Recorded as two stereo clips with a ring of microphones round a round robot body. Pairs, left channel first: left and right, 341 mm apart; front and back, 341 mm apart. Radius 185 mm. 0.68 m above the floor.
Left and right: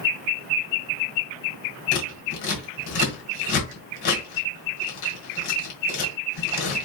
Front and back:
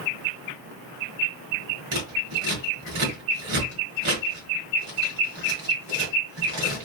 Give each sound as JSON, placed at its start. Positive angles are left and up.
{"t": 1.9, "sound": "scissors", "azimuth_deg": 120, "distance_m": 1.5}